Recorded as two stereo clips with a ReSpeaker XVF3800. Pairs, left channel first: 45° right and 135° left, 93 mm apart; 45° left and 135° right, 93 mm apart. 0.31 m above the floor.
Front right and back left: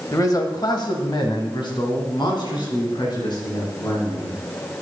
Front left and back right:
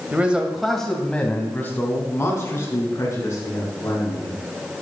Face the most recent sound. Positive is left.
turn(degrees=-10)